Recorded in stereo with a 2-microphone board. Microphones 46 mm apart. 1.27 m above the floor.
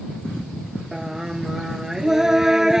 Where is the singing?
10° right (ahead or behind).